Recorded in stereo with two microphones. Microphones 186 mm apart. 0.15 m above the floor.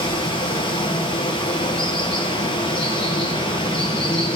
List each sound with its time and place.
0.0 s running water: 25° left (ahead or behind), 1.8 m